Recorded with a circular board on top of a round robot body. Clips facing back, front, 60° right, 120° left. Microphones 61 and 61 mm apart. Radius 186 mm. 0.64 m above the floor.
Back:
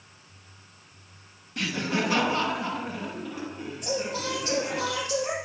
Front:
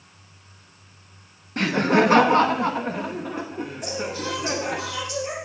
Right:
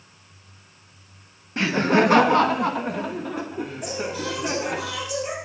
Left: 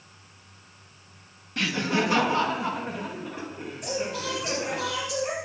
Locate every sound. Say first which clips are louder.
1.6 s laughter: front 9 dB, right 7 dB; 10° right, 0.6 m; by 4.8 s 50° right, 2.5 m
3.8 s singing: back 1 dB, left 1 dB; 145° right, 6.5 m